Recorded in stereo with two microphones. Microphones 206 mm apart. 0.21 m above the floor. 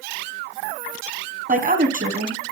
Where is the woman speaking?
45° right (ahead or behind), 1.7 m.